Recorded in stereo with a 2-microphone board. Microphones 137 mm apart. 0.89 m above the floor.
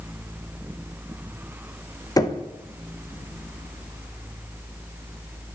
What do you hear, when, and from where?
2.2 s knocking: 25° left (ahead or behind), 0.6 m